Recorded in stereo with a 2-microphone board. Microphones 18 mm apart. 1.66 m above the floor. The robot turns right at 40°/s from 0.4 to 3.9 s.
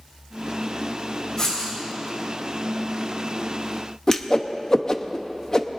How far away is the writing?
About 6 m.